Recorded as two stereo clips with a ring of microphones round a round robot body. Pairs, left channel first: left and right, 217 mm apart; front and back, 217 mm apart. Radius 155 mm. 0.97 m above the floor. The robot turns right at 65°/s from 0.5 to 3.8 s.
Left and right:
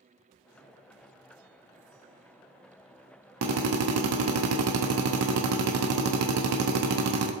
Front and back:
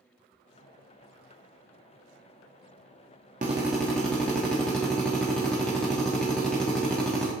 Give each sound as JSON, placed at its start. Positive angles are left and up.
{"t": 3.4, "sound": "a drill", "azimuth_deg": -110, "distance_m": 0.9}